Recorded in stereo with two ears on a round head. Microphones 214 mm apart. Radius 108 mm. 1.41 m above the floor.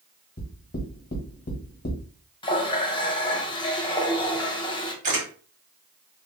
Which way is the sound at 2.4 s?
20° left (ahead or behind).